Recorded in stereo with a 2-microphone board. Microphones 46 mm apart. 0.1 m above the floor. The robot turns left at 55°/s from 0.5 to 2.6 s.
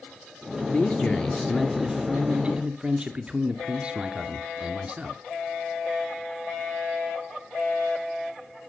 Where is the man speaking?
60° left, 1.2 m; by 5.2 s 45° right, 1.2 m.